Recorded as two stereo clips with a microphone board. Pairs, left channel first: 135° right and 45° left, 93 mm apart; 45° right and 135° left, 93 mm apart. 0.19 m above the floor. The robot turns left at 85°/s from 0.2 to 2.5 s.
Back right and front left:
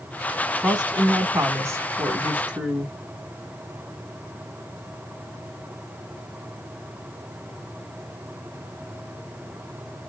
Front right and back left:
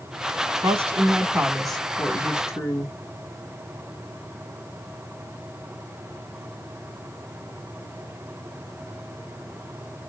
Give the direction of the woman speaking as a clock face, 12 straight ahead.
7 o'clock.